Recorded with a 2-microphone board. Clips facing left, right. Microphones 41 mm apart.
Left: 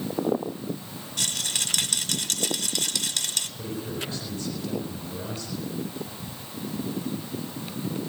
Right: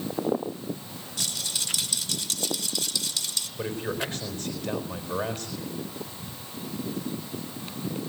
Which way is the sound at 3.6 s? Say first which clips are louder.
Right 7 dB; 50° right (ahead or behind).